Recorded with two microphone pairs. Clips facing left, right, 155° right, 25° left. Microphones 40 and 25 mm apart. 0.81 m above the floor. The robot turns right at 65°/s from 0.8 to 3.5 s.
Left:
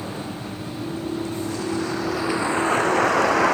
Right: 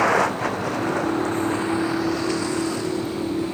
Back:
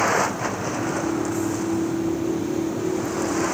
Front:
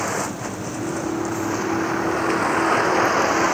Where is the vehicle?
85° right; by 3.5 s 90° left.